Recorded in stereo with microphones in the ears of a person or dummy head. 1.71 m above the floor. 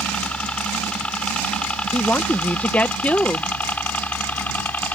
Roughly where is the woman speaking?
Centre.